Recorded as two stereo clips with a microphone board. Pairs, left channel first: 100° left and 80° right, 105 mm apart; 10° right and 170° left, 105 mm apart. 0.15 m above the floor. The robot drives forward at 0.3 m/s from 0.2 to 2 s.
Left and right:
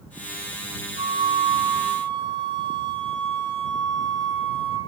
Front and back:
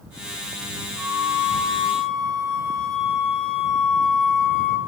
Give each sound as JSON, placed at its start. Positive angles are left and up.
{"t": 1.0, "sound": "a flute", "azimuth_deg": -80, "distance_m": 1.2}